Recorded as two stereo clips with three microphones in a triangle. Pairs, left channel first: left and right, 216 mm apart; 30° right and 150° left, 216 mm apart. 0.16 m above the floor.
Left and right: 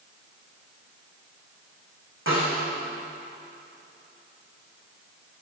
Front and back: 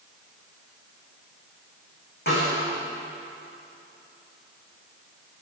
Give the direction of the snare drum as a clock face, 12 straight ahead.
2 o'clock.